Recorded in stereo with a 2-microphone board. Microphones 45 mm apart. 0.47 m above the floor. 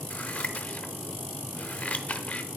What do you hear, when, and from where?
0.1 s scissors: 30° left (ahead or behind), 0.6 m